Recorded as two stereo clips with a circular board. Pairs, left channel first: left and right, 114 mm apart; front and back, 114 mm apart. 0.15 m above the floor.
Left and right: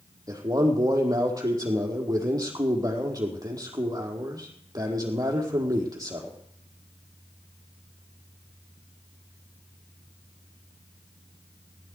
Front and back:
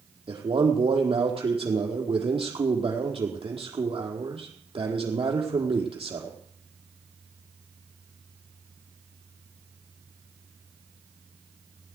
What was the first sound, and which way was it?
A man speaking, 145° right.